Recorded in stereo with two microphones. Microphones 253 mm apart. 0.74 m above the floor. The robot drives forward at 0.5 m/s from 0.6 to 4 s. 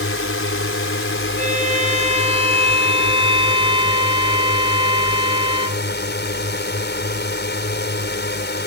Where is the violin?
30° right (ahead or behind); by 5.8 s 20° right (ahead or behind).